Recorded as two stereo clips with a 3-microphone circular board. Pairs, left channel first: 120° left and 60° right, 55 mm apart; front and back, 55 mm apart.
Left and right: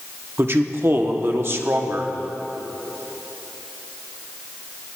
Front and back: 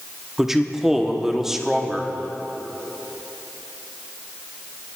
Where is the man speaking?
95° right, 0.9 m.